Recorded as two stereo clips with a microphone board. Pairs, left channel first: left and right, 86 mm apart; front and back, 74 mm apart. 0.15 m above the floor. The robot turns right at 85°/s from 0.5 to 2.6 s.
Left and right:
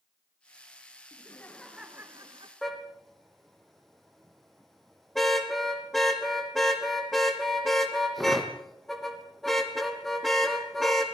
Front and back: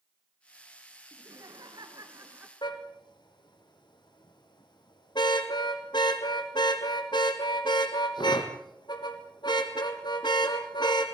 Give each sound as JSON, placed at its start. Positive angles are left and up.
{"t": 1.1, "sound": "laughter", "azimuth_deg": 130, "distance_m": 2.0}
{"t": 2.6, "sound": "a car horn", "azimuth_deg": 0, "distance_m": 3.5}